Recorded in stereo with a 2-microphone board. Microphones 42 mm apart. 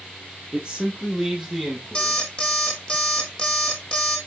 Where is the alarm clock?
25° left (ahead or behind), 1.7 m.